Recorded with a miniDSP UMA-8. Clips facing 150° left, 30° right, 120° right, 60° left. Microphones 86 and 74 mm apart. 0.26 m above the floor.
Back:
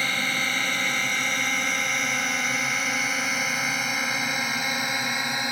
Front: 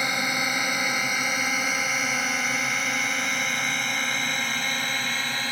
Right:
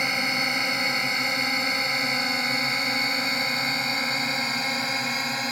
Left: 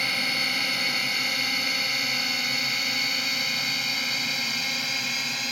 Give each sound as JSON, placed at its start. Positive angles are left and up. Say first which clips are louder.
{"t": 0.0, "sound": "a drone", "louder": "front 1 dB, right 3 dB", "azimuth_deg": -85}